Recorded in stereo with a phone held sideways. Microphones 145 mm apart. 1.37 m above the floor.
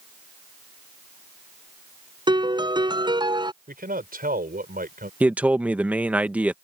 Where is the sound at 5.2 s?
10° right (ahead or behind).